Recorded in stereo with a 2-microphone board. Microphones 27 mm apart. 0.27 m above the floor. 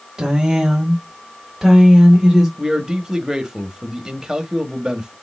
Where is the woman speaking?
25° right (ahead or behind), 1.4 m; by 2.5 s 10° right (ahead or behind), 2.0 m.